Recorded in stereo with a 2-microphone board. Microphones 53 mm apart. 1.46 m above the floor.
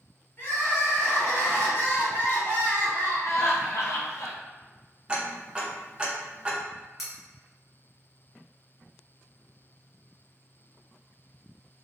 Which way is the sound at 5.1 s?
20° right (ahead or behind).